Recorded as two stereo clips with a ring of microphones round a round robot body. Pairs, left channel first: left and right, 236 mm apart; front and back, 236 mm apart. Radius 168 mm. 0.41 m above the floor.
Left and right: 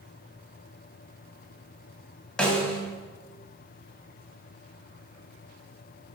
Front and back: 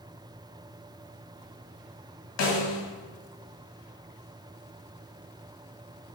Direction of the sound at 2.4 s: 5° left.